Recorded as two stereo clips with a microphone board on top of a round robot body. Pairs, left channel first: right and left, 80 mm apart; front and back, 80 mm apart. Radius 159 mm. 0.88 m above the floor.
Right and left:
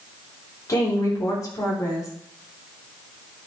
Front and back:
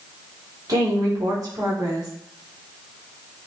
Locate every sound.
0.7 s a woman speaking: 140° right, 3.5 m